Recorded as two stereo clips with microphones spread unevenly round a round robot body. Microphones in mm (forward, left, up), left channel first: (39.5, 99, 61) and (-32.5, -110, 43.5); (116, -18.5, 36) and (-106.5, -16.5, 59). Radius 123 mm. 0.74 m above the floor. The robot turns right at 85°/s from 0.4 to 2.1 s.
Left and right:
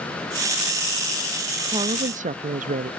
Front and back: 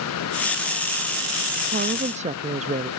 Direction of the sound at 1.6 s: 170° right.